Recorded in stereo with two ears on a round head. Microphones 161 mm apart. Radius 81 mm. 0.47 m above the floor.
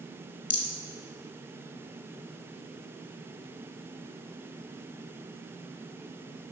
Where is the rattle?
45° left (ahead or behind), 1.1 m.